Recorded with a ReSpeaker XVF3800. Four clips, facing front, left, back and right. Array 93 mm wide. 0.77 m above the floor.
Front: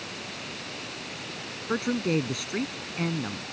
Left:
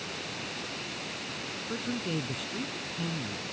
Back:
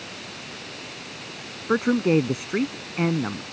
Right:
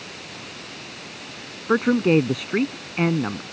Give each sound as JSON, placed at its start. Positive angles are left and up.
{"t": 1.7, "sound": "a man speaking", "azimuth_deg": -120}